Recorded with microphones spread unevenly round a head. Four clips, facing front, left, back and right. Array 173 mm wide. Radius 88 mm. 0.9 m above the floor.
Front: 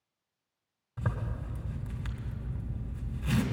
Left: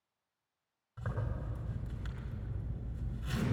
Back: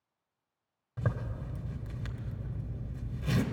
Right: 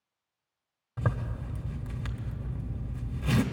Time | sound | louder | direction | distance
1.0 | a zipper | right 7 dB, back 1 dB | 115° right | 1.2 m